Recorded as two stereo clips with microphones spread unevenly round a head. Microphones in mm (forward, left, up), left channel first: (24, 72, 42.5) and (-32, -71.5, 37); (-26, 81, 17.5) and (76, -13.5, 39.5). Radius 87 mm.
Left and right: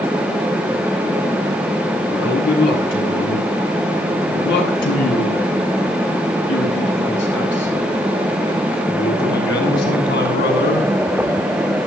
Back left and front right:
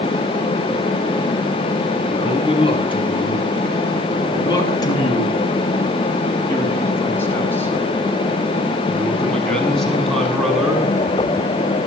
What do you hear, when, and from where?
2.1 s a man speaking: 85° left, 8.5 m; by 10.9 s 45° left, 9 m